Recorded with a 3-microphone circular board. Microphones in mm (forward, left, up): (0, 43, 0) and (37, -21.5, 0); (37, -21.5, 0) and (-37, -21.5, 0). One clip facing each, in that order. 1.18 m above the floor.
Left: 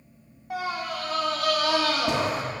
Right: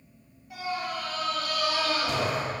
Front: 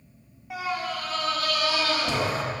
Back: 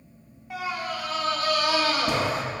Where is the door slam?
No door slam in this recording.